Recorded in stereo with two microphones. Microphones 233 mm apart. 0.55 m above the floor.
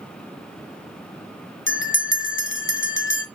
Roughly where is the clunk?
No clunk in this recording.